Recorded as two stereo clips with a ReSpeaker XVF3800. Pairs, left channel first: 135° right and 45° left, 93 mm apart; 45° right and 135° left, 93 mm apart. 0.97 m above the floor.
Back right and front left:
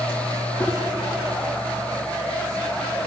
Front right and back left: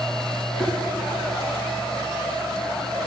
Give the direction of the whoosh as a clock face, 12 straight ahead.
3 o'clock.